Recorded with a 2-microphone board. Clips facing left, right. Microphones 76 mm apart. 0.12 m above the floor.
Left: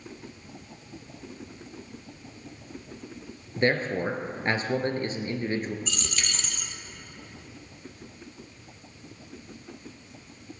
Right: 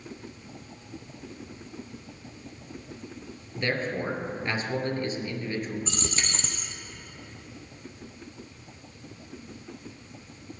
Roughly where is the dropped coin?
Right.